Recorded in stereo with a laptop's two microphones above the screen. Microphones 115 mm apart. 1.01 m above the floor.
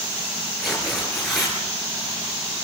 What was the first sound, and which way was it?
Tearing paper, centre (ahead or behind).